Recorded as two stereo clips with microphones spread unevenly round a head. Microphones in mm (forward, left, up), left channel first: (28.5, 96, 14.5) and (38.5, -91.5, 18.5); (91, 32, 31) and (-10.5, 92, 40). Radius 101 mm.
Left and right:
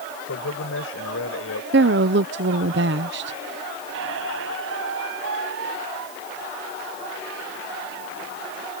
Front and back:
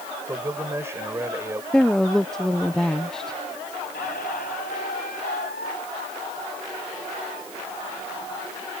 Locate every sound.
0.2 s a man speaking: 80° left
1.7 s a woman speaking: 120° right
3.9 s a squeak: 75° right